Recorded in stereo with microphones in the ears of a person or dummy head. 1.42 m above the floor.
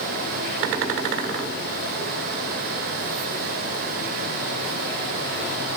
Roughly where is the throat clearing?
No throat clearing in this recording.